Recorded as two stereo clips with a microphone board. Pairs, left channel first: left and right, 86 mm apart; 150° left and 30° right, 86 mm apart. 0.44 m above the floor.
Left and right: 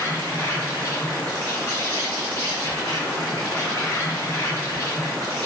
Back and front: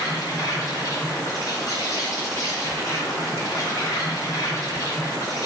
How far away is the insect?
About 1.6 m.